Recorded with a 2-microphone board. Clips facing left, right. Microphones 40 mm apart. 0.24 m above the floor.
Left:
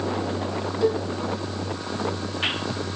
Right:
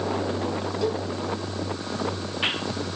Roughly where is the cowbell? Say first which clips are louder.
Left 5 dB; centre.